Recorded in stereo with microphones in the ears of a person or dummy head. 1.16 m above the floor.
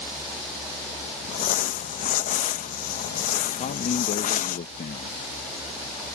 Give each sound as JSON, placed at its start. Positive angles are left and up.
{"t": 1.3, "sound": "crumpling", "side_deg": 45}
{"t": 3.6, "sound": "a man speaking", "side_deg": 40}